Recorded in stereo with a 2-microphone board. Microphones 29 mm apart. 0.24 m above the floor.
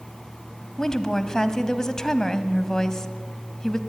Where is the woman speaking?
20° left (ahead or behind), 1.3 m.